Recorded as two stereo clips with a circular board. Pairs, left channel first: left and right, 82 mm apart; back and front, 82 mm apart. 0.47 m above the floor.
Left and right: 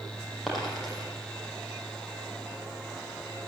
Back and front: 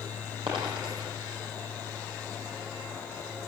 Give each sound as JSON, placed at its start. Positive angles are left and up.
{"t": 0.5, "sound": "a dropped coin", "azimuth_deg": 0, "distance_m": 8.0}